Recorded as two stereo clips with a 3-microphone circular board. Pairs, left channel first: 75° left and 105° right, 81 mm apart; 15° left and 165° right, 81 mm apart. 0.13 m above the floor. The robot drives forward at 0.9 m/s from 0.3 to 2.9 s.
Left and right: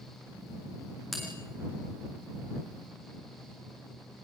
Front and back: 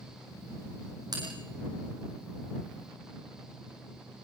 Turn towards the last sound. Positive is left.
turn(degrees=165)